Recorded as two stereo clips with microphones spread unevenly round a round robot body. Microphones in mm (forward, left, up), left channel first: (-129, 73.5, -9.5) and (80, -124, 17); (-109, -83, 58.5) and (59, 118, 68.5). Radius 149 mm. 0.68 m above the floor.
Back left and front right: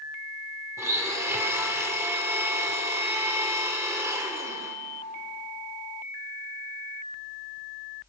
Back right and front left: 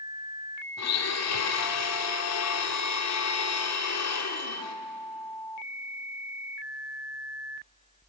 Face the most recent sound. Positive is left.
turn(degrees=-125)